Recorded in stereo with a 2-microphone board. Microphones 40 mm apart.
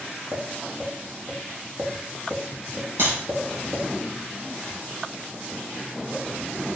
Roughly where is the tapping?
Right.